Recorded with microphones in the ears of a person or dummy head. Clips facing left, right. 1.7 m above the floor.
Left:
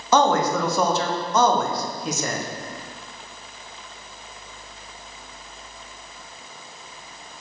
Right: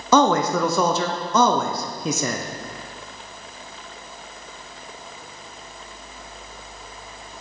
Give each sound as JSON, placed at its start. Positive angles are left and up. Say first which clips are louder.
{"t": 0.1, "sound": "a man speaking", "louder": "right 1 dB", "side_deg": -75, "distance_m": 0.6}